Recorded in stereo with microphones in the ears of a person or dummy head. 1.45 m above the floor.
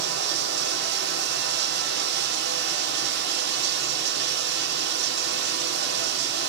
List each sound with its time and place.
0.0 s running water: 70° right (ahead or behind), 3 m